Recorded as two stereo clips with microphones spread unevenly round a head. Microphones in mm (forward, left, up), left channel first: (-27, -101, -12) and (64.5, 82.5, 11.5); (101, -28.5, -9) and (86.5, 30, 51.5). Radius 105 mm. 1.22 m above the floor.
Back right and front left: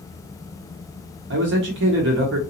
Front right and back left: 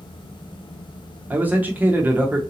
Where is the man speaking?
30° left, 0.9 m.